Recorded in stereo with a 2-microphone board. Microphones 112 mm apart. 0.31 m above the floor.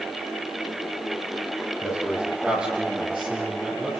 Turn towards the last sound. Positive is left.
turn(degrees=-20)  # may be behind; listen again after turning